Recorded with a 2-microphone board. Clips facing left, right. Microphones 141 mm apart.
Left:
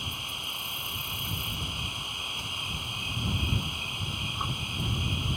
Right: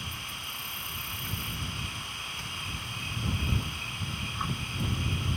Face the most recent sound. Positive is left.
turn(degrees=20)  # may be behind; listen again after turning